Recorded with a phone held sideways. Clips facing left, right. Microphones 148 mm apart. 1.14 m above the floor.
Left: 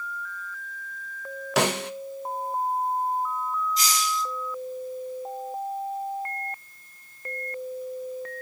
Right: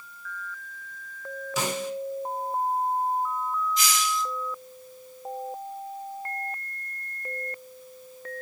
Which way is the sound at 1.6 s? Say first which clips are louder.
Left 5 dB; 90° left.